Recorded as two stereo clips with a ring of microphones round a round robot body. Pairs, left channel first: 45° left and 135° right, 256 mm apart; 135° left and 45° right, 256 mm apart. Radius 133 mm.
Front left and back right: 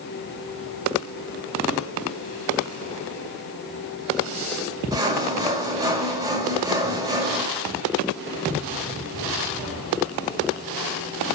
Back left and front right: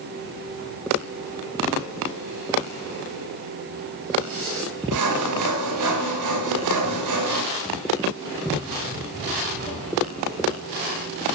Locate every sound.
4.9 s sawing: 60° right, 1.3 m